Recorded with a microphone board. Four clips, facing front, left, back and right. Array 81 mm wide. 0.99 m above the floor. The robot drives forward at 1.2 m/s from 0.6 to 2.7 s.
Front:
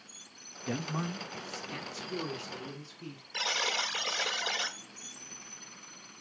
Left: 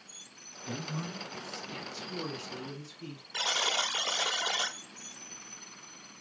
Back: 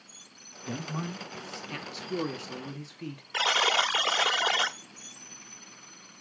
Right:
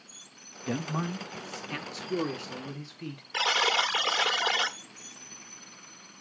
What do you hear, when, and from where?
0.7 s a man speaking: 60° right, 1.6 m; by 3.2 s 145° right, 2.5 m
3.3 s a buzzer: 155° right, 0.8 m